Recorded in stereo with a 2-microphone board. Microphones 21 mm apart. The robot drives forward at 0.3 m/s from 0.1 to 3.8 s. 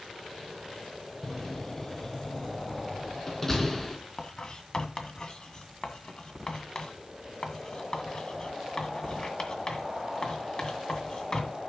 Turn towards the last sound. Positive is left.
turn(degrees=35)  # may be behind; listen again after turning